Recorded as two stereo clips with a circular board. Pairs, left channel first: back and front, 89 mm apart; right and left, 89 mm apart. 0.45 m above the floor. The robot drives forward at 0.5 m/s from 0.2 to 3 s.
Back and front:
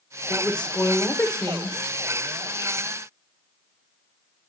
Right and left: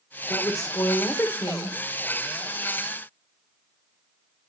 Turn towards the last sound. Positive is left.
turn(degrees=-155)